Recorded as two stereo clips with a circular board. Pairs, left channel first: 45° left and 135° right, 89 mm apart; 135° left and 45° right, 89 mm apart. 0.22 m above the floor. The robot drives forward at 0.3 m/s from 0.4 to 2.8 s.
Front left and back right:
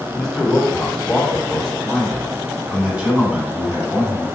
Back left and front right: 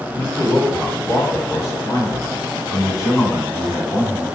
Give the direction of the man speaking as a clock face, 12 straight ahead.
8 o'clock.